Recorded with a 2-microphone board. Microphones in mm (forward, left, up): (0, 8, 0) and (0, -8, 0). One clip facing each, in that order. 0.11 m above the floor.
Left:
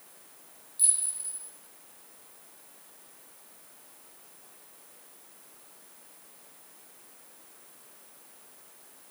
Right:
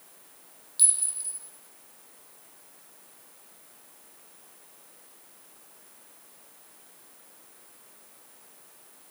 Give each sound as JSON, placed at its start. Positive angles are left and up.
{"t": 0.8, "sound": "a clink", "side_deg": -50, "distance_m": 3.0}